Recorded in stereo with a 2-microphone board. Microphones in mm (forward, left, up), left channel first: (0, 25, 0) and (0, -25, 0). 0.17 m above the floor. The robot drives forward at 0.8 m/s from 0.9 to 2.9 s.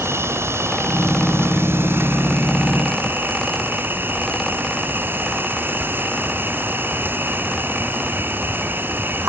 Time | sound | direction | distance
0.0 | an insect | 60° right (ahead or behind) | ?